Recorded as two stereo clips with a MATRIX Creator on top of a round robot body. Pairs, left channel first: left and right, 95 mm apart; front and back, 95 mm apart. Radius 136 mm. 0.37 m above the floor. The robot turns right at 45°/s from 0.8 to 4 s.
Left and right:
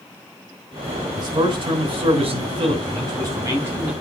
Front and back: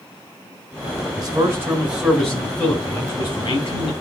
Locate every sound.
1.2 s a man speaking: 135° right, 3.5 m; by 3.9 s 10° right, 3.5 m